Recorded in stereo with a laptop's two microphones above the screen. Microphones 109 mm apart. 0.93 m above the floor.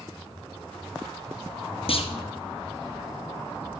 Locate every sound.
1.9 s a clunk: 60° left (ahead or behind), 0.9 m